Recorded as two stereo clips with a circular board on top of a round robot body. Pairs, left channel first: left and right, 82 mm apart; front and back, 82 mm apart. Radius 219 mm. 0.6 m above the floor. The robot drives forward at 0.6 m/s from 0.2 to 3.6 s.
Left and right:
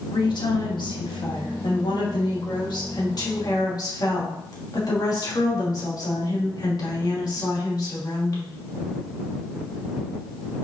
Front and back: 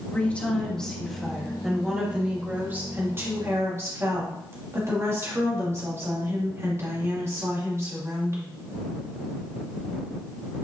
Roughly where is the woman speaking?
Left.